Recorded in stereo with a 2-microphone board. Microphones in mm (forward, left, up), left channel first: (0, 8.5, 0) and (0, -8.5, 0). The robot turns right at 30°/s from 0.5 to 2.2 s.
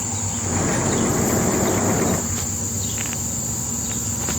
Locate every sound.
Only background noise.